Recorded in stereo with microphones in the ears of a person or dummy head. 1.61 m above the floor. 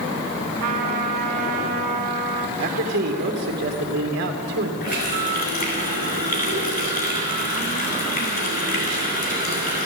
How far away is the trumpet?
About 2 m.